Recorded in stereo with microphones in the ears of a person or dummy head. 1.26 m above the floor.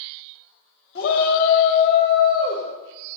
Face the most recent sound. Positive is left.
turn(degrees=20)  # may be behind; listen again after turning